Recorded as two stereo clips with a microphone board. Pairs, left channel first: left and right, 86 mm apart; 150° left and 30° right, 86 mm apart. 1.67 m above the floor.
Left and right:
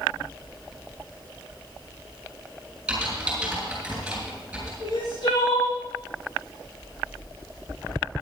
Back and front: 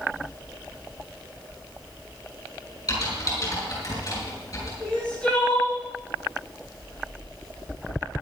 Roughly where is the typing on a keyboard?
Behind.